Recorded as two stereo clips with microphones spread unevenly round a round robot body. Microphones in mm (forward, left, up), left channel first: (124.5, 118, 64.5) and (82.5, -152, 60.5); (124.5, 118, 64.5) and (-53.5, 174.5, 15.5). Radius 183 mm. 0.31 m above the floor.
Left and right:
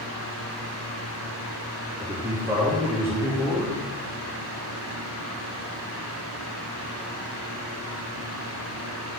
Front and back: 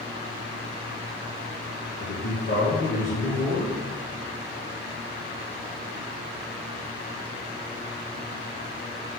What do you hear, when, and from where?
2.0 s a man speaking: 20° right, 3 m